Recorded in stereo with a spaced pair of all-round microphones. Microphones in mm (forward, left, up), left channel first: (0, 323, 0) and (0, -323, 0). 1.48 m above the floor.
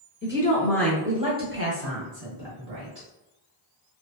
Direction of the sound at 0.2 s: 20° left (ahead or behind).